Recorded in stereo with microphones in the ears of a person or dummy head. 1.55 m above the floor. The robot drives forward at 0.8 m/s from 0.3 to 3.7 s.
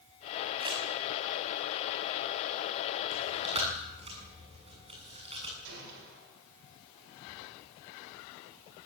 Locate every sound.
0.6 s crumpling: 25° right (ahead or behind), 6 m
3.1 s chewing: 35° right (ahead or behind), 7 m; by 5.5 s 30° right (ahead or behind), 7.5 m
5.6 s a gunshot: 65° right (ahead or behind), 7.5 m